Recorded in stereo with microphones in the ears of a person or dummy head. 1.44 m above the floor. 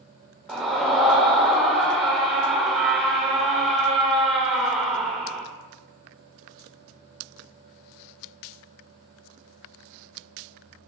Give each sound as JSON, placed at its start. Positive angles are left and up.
{"t": 0.5, "sound": "a scream", "side_deg": 0, "distance_m": 0.6}